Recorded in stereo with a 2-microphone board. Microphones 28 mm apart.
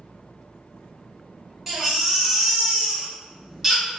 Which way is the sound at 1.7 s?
10° right (ahead or behind).